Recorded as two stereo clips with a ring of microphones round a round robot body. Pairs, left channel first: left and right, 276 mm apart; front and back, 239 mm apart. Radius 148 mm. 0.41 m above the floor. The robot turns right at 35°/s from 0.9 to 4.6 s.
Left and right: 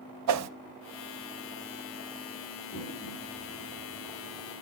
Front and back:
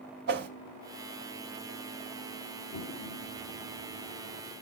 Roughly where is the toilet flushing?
Ahead.